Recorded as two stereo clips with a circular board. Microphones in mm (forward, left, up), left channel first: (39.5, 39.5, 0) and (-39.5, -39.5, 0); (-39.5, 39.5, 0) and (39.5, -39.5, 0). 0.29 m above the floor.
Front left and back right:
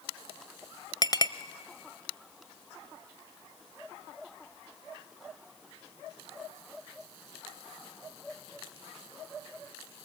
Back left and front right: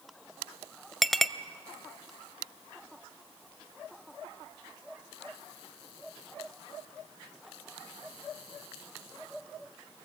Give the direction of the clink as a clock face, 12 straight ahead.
10 o'clock.